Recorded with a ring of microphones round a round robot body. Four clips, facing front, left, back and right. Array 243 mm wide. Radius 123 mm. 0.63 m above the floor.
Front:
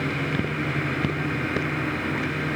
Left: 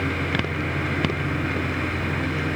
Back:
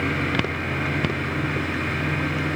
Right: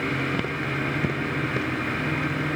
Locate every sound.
Only background noise.